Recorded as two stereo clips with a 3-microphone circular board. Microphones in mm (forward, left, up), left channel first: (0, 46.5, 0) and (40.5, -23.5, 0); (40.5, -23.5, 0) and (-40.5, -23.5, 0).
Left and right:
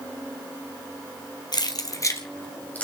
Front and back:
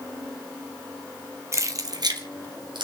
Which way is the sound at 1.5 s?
130° left.